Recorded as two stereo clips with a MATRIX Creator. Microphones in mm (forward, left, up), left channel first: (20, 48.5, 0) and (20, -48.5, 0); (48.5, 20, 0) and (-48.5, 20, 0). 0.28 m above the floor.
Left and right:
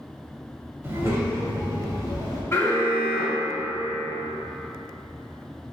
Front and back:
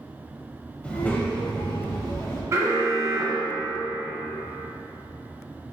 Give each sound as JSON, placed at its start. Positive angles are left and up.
{"t": 0.8, "sound": "a child speaking", "azimuth_deg": -60, "distance_m": 1.0}
{"t": 2.5, "sound": "an alarm", "azimuth_deg": 135, "distance_m": 0.8}